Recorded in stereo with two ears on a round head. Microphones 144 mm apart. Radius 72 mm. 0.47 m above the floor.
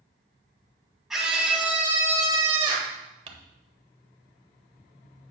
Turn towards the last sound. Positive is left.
turn(degrees=-40)  # may be behind; listen again after turning